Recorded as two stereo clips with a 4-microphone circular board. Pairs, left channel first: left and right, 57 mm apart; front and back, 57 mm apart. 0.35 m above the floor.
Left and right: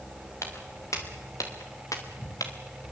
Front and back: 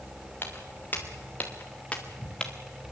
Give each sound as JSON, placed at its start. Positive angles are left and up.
{"t": 0.4, "sound": "footsteps", "azimuth_deg": 55, "distance_m": 5.0}